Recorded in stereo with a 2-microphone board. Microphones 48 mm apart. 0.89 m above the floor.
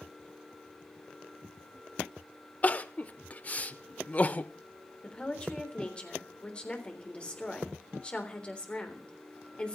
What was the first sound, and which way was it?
Crying, 30° left (ahead or behind).